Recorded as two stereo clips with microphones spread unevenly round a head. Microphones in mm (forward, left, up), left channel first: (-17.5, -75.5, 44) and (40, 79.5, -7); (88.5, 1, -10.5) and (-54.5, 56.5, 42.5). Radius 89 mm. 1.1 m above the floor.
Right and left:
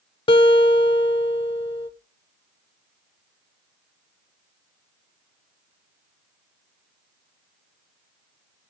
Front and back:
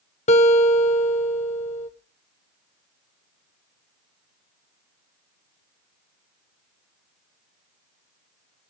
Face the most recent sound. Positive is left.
turn(degrees=-80)